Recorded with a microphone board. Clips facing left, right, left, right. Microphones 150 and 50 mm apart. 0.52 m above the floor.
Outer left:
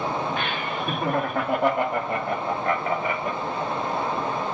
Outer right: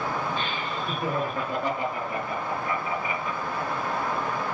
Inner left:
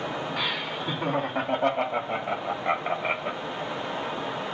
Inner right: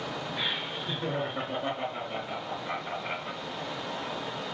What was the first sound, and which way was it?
Laughter, 75° left (ahead or behind).